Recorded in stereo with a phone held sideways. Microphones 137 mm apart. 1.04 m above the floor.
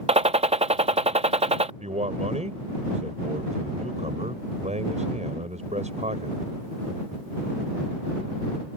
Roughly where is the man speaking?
Right.